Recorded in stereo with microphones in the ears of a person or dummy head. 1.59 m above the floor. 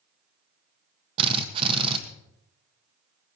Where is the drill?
30° right (ahead or behind), 1.5 m.